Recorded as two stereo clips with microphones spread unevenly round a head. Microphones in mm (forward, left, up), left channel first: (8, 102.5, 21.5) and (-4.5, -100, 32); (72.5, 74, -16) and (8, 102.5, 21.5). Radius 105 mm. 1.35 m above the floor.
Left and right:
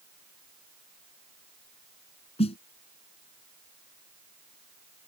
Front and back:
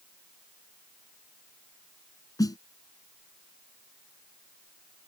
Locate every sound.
2.4 s a snare drum: 25° left